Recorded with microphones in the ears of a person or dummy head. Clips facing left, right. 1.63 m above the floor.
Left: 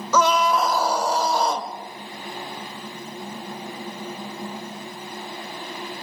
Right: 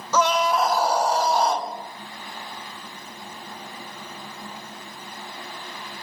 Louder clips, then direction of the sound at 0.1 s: Left 1 dB; 75° left (ahead or behind).